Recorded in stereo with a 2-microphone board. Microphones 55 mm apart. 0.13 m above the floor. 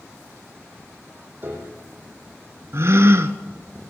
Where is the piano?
40° right (ahead or behind), 3 m.